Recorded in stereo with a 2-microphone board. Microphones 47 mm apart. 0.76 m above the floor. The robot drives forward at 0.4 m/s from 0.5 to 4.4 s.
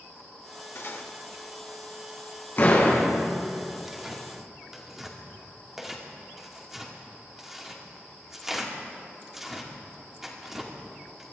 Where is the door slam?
50° left (ahead or behind), 5.5 m.